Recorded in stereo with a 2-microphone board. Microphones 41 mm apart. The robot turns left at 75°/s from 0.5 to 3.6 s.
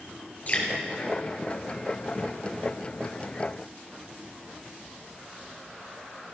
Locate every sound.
0.5 s dripping: 40° left (ahead or behind), 3.5 m; by 0.7 s 30° left (ahead or behind), 3.5 m